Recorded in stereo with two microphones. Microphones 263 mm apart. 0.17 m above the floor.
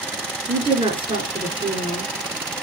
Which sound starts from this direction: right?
A woman speaking, at 0.5 s.